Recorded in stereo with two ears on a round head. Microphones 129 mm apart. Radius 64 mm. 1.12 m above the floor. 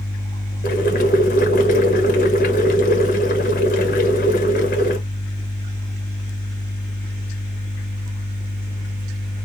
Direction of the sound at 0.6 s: 60° left (ahead or behind).